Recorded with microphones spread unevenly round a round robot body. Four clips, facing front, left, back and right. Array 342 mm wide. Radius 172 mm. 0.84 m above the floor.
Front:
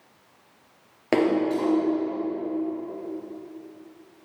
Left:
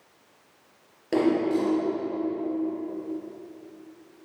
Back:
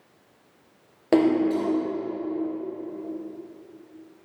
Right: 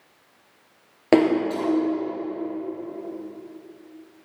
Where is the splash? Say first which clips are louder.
Right 4 dB, back 2 dB; 70° right, 5 m.